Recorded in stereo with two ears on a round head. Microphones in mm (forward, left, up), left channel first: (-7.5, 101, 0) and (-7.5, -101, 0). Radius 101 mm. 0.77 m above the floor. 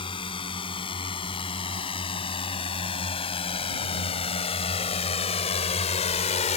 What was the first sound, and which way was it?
A drone, 25° left (ahead or behind).